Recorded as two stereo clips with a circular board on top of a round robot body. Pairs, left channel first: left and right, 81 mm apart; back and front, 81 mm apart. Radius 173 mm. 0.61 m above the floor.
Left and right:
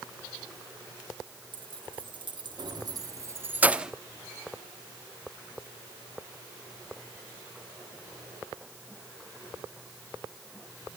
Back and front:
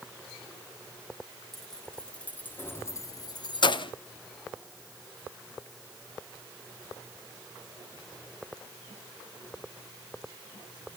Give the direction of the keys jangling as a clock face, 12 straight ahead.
3 o'clock.